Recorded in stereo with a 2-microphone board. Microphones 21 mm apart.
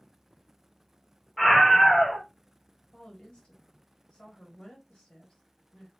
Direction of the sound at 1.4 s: 15° left (ahead or behind).